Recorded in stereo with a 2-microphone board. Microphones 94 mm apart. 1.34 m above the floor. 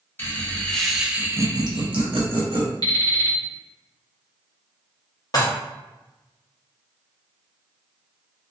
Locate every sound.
0.2 s laughter: 20° left (ahead or behind), 0.8 m; by 2.7 s 80° right, 0.9 m
2.8 s an alarm clock: 45° left (ahead or behind), 0.9 m
5.3 s dishes clattering: 40° left (ahead or behind), 0.7 m